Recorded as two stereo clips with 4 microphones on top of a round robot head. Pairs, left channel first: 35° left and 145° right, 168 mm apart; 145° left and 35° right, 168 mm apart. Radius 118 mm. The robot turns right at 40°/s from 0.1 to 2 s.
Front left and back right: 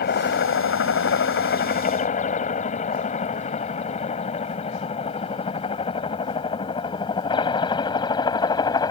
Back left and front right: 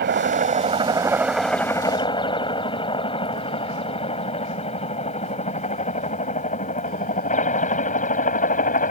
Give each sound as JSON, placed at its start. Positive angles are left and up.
{"t": 0.0, "sound": "a helicopter", "azimuth_deg": 0}